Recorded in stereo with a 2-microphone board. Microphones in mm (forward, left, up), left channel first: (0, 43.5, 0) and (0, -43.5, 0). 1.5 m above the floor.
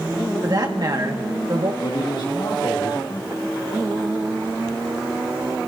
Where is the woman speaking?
50° right (ahead or behind), 2 m.